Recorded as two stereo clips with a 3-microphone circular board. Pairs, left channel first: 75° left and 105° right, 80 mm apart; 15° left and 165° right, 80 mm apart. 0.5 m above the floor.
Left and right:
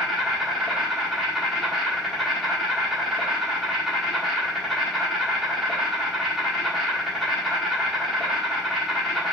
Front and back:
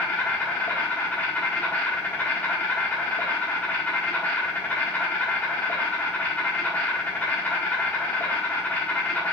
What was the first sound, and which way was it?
An insect, 15° right.